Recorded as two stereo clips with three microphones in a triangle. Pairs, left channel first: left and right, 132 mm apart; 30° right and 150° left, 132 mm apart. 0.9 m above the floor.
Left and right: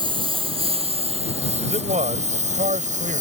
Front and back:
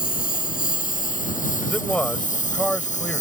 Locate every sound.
0.0 s a lawn mower: 35° right; by 3.2 s 60° right
1.6 s a man speaking: 115° right